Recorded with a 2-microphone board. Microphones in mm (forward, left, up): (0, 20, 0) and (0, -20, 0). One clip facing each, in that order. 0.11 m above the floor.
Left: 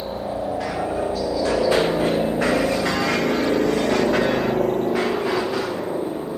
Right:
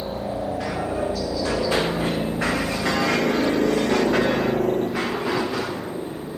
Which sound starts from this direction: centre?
A helicopter, at 0.0 s.